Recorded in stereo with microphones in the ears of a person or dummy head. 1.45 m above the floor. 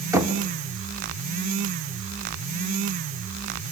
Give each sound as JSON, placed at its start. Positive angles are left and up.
{"t": 0.1, "sound": "knocking", "side_deg": -10, "distance_m": 1.5}